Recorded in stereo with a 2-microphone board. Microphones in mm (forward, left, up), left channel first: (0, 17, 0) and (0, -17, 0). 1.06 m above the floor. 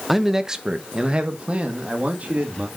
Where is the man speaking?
5° right (ahead or behind), 0.8 m; by 2.7 s 45° right (ahead or behind), 2 m.